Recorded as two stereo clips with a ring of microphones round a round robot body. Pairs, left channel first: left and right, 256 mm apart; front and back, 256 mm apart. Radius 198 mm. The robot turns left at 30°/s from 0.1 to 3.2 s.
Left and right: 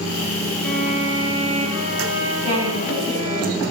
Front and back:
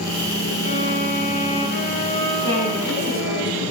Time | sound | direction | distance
0.6 | a violin | 5° left | 5 m
2.4 | a woman speaking | 115° right | 6.5 m